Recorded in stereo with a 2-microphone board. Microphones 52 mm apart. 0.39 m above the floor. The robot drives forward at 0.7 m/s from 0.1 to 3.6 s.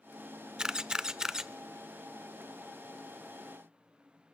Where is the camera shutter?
15° right (ahead or behind), 0.6 m; by 1.5 s 10° right (ahead or behind), 0.8 m.